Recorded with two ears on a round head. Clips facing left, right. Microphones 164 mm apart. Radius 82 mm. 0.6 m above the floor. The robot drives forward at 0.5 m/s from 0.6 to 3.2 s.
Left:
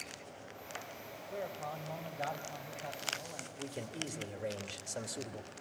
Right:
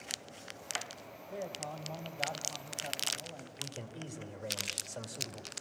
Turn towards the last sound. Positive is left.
turn(degrees=25)  # may be behind; listen again after turning